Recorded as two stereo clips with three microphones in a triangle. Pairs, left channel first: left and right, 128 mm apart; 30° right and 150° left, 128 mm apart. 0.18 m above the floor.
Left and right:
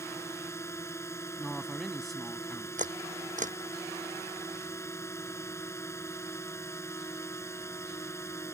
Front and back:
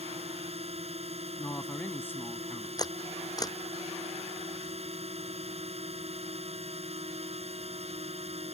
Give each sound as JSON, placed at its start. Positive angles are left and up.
{"t": 0.0, "sound": "a drone", "azimuth_deg": 155}
{"t": 1.4, "sound": "a man speaking", "azimuth_deg": 0}
{"t": 2.8, "sound": "a camera shutter", "azimuth_deg": -90}